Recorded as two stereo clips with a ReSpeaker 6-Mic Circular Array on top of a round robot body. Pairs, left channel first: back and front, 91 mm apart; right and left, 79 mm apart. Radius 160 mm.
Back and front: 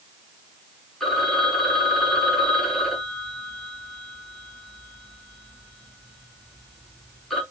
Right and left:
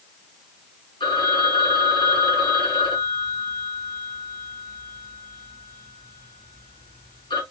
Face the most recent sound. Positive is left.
turn(degrees=-90)